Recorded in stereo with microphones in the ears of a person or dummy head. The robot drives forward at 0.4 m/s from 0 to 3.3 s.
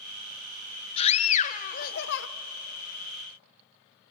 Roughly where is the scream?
Left.